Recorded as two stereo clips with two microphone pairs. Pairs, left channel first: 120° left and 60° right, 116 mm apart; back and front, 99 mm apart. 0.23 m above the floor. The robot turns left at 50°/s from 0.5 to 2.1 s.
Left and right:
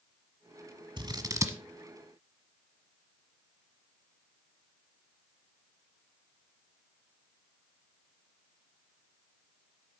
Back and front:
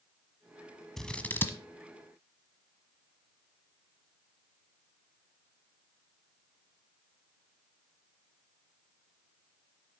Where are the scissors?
95° right, 1.2 m; by 1.6 s 125° right, 1.2 m.